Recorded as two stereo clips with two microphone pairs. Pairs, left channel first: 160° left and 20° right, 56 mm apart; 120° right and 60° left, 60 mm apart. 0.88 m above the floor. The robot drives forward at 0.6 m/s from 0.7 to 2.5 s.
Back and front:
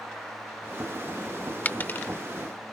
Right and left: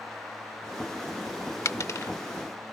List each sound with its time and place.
1.6 s a dropped coin: 145° right; by 2.1 s 155° right